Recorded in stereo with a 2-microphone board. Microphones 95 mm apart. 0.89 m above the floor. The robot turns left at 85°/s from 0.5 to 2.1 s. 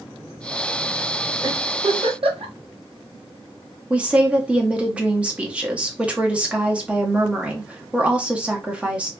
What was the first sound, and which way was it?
A giggle, 35° right (ahead or behind).